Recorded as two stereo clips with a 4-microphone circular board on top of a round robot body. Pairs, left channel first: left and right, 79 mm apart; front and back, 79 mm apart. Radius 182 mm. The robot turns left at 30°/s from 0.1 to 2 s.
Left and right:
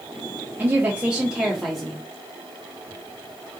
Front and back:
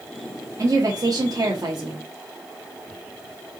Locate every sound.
0.6 s a woman speaking: 150° right, 1.2 m; by 2.0 s 170° left, 1.2 m